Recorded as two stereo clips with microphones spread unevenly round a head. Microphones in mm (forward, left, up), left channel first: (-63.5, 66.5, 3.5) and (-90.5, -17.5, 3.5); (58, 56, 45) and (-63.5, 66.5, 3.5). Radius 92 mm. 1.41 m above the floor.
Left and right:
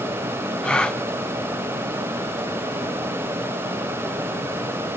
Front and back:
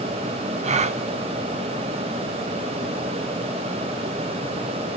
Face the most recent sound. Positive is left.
turn(degrees=155)